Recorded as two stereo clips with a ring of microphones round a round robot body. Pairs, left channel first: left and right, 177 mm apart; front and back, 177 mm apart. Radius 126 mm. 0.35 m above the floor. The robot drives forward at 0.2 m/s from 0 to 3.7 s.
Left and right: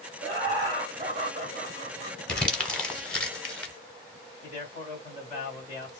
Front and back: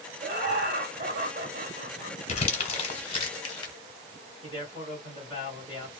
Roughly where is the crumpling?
Ahead.